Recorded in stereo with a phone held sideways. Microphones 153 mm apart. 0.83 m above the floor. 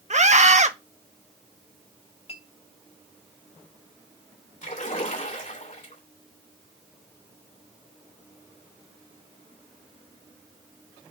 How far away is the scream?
About 1.0 m.